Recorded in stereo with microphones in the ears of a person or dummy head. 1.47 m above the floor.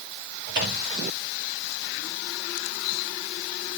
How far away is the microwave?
About 1.6 m.